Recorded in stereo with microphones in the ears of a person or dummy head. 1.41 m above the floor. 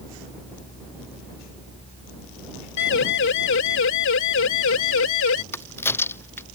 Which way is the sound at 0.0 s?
35° left (ahead or behind).